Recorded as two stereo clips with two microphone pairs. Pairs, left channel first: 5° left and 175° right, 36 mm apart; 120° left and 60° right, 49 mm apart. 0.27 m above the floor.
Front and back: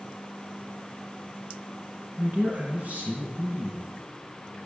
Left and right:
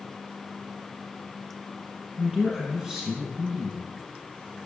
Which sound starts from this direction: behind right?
A man speaking, at 2.2 s.